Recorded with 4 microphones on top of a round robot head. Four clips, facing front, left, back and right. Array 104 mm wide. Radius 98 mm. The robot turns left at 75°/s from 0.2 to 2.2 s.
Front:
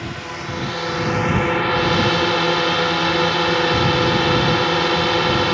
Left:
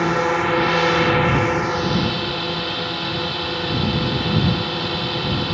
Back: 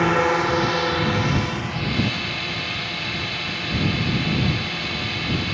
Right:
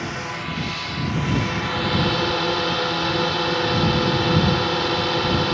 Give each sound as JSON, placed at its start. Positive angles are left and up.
{"t": 0.0, "sound": "a drone", "azimuth_deg": 140}